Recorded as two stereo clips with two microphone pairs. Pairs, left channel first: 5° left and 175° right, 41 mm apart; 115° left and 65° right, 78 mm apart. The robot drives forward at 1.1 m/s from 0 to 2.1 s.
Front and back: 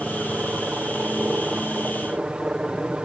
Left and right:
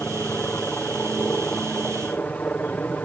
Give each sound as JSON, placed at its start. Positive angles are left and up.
{"t": 0.0, "sound": "a helicopter", "azimuth_deg": 155}